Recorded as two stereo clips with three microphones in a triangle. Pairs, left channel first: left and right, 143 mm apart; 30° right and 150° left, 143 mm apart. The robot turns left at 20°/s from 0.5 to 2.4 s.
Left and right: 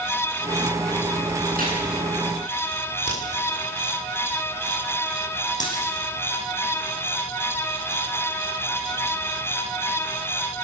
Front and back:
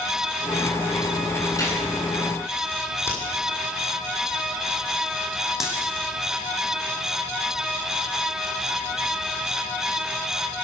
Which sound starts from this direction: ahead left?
A dropped coin, at 5.6 s.